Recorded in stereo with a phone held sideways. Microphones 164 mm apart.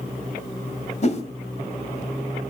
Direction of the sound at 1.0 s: 45° left (ahead or behind).